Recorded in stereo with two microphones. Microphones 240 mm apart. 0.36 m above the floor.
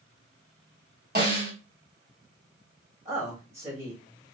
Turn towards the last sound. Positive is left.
turn(degrees=-30)  # may be behind; listen again after turning